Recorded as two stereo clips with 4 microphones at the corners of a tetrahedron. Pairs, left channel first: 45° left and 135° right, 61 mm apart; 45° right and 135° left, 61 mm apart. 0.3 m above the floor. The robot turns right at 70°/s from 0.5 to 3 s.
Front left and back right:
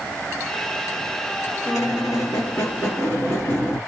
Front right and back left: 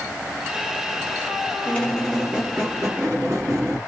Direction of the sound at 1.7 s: 15° left.